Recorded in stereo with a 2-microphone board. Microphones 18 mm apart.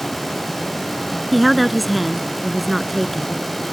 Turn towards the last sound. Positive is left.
turn(degrees=0)  # may be behind; listen again after turning